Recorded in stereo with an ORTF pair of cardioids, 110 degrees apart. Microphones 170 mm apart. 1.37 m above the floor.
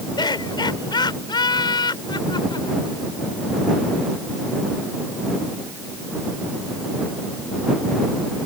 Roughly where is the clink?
I don't hear a clink.